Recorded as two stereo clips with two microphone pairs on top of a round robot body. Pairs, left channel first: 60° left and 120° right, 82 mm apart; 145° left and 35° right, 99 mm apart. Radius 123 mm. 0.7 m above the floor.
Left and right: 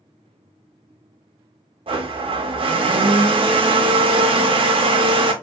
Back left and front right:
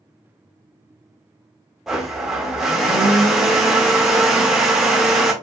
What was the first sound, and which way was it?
A blender, 120° right.